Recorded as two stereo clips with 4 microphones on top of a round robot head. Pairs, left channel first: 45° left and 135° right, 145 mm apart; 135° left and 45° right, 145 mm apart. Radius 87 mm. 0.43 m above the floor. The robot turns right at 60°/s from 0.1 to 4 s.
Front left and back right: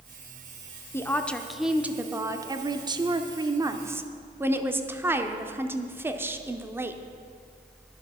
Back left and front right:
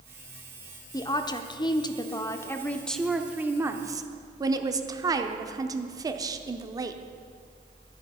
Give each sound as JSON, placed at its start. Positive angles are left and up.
{"t": 0.9, "sound": "a woman speaking", "azimuth_deg": 100, "distance_m": 0.8}